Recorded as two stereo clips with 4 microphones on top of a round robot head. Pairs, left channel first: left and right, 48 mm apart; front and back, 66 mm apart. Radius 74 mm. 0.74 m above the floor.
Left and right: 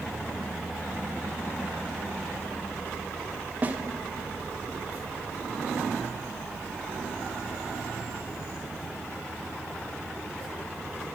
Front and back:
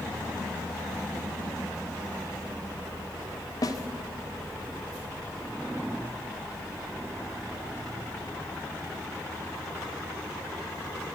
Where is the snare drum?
30° right, 1.9 m.